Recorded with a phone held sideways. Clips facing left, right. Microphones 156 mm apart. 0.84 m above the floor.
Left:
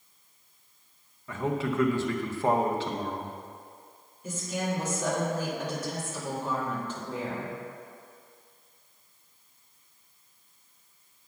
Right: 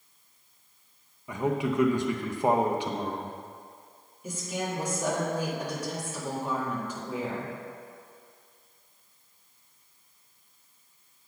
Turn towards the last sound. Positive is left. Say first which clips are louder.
# left 1 dB
turn(degrees=-10)  # may be behind; listen again after turning